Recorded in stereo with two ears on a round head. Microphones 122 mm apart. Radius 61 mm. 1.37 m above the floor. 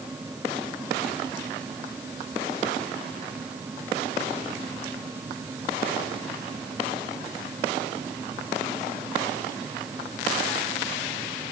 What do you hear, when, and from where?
Only background noise.